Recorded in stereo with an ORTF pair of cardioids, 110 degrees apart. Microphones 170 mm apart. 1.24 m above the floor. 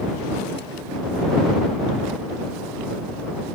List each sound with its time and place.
Only background noise.